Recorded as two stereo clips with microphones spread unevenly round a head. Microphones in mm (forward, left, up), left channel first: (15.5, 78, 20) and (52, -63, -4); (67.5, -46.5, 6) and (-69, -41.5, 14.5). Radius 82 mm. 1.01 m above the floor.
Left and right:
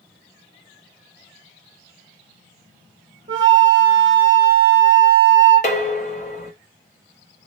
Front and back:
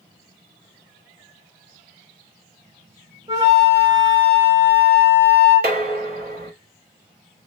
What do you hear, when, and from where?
3.3 s a flute: 140° right, 0.9 m
5.6 s dishes clattering: 145° left, 0.7 m